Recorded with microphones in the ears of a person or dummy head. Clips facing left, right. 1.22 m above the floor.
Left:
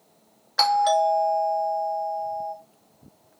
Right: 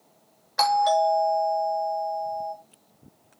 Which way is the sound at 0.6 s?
5° left (ahead or behind).